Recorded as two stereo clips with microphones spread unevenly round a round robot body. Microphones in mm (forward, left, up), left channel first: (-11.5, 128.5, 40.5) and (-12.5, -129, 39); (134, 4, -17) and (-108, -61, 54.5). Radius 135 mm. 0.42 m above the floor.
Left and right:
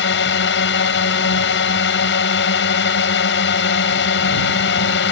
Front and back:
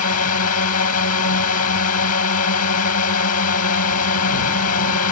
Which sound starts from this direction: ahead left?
A drone, at 0.0 s.